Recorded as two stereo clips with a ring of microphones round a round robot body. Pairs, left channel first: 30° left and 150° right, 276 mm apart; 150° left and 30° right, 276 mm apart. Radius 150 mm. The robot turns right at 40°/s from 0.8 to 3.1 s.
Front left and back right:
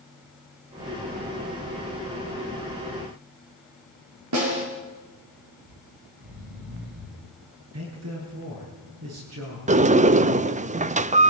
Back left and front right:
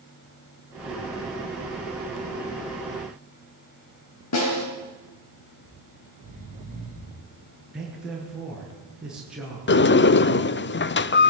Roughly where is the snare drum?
Behind.